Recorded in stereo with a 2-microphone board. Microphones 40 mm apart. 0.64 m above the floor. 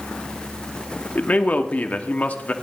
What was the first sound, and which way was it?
A man speaking, 40° left (ahead or behind).